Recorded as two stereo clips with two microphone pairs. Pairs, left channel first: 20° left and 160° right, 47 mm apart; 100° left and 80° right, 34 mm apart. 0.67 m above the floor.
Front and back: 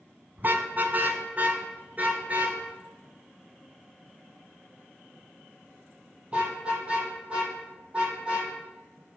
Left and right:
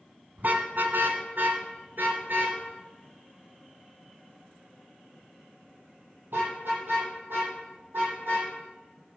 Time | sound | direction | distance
0.4 | a car horn | 115° right | 2 m